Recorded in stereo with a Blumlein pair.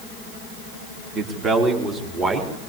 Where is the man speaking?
30° right, 3 m; by 2.5 s 20° right, 4 m.